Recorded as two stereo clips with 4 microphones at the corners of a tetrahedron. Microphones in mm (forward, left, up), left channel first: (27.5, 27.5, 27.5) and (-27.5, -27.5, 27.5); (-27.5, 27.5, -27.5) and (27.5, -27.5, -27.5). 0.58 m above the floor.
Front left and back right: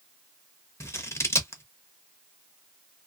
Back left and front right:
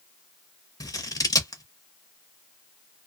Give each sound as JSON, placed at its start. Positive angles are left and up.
{"t": 0.8, "sound": "scissors", "azimuth_deg": 95, "distance_m": 0.7}